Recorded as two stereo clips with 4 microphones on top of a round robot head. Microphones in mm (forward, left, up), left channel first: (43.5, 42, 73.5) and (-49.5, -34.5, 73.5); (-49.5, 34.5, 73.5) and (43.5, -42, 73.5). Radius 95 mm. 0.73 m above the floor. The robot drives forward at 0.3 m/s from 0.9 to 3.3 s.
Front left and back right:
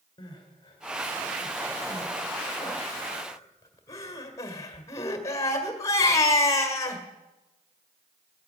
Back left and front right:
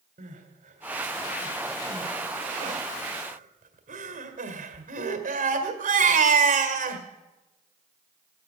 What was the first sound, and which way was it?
Crying, 20° right.